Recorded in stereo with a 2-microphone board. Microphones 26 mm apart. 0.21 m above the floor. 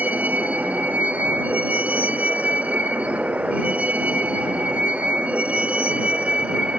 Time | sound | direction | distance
0.0 | a vehicle | 80° right | ?